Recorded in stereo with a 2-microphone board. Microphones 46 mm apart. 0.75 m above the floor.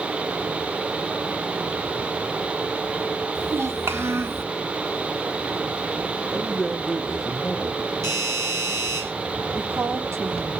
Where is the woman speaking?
70° right (ahead or behind), 1.7 m.